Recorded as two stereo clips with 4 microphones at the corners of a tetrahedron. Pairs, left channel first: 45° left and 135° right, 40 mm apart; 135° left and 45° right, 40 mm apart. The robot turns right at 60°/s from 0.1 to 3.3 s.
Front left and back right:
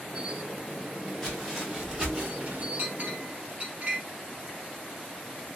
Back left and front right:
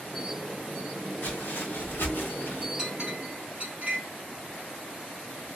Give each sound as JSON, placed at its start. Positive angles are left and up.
{"t": 1.2, "sound": "footsteps", "azimuth_deg": 120, "distance_m": 2.5}
{"t": 2.8, "sound": "a clink", "azimuth_deg": -120, "distance_m": 2.0}